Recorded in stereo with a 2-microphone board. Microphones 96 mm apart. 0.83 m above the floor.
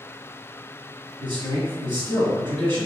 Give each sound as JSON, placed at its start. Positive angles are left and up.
{"t": 1.2, "sound": "a man speaking", "side_deg": -50, "distance_m": 1.5}